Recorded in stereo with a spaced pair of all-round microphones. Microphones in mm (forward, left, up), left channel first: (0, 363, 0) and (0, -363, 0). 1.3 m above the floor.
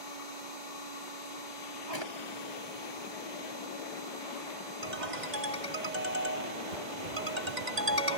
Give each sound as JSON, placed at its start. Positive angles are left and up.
{"t": 0.0, "sound": "a machine running", "side_deg": -85}
{"t": 1.9, "sound": "a drawer", "side_deg": 35}
{"t": 4.8, "sound": "a ringtone", "side_deg": -80}